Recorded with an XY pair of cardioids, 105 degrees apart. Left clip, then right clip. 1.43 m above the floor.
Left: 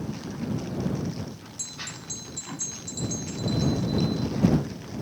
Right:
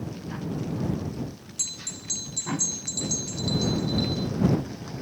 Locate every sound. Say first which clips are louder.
1.6 s a bell: right 3 dB; 40° right